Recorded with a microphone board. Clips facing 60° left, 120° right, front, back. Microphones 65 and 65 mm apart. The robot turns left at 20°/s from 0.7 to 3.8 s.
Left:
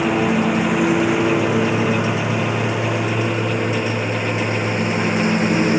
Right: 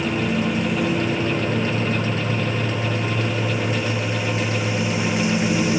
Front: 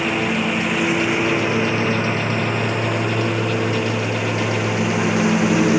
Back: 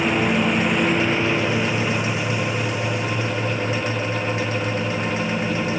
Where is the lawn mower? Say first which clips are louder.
Left 5 dB, back 1 dB; 85° left; by 5.8 s 15° left.